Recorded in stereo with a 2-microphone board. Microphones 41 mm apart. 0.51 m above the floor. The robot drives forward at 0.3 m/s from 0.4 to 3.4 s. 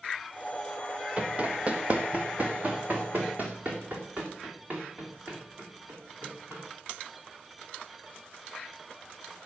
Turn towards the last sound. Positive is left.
turn(degrees=-45)  # may be behind; listen again after turning